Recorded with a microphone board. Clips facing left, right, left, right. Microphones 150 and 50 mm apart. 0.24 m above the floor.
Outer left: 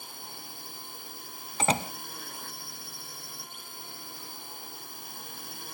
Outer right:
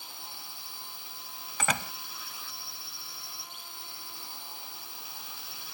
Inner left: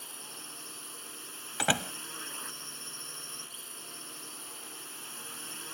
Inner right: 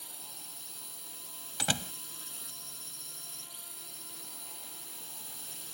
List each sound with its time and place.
0.0 s a drone: 55° left (ahead or behind)
1.6 s a door slam: 30° left (ahead or behind)